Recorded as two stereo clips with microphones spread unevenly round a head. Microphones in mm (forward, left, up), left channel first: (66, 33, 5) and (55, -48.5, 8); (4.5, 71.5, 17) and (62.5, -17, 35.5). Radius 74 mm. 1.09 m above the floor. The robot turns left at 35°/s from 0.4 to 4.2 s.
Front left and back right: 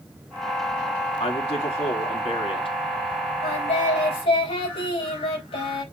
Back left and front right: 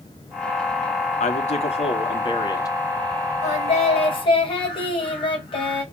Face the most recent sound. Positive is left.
turn(degrees=85)